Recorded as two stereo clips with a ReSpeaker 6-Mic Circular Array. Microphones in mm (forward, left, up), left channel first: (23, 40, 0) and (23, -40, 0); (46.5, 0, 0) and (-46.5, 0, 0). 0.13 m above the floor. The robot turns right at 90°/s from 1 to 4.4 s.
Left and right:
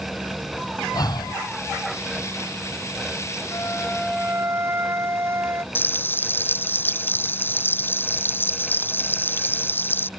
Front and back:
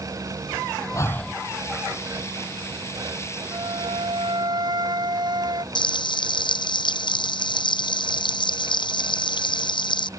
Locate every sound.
0.9 s breathing: 55° left; by 1.4 s 90° left
3.5 s a flute: 135° left; by 5.7 s 145° right
5.8 s frying: 30° left